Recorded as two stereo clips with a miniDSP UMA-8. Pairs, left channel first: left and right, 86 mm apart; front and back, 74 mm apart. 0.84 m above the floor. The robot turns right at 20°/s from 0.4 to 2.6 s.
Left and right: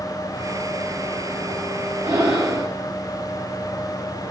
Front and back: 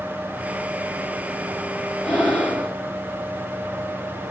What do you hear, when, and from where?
2.0 s breathing: 85° right, 1.0 m; by 2.7 s 70° right, 1.0 m